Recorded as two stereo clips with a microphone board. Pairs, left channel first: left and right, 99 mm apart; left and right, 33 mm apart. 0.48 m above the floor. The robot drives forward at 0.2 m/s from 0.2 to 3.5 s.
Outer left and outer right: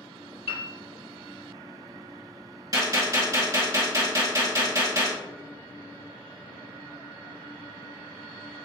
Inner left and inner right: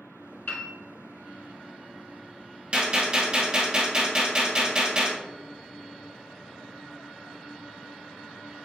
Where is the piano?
70° left (ahead or behind), 1.0 m.